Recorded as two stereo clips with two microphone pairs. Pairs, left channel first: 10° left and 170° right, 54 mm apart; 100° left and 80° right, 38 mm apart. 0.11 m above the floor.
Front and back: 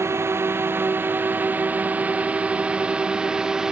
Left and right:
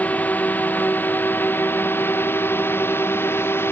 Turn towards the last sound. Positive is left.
turn(degrees=110)